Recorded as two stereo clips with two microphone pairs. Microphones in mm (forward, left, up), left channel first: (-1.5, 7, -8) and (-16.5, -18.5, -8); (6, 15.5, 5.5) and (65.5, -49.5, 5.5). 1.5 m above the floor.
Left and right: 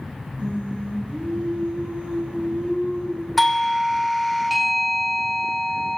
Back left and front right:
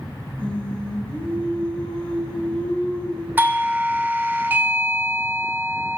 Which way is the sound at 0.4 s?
150° right.